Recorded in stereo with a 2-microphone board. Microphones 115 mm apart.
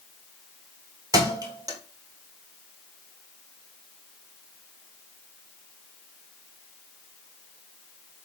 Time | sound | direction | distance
1.1 | a thud | 30° right (ahead or behind) | 1.1 m